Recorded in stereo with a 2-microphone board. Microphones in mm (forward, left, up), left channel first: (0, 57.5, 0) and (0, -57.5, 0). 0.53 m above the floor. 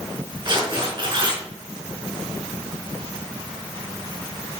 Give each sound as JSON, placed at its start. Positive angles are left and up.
{"t": 0.5, "sound": "tearing paper", "side_deg": -45, "distance_m": 3.5}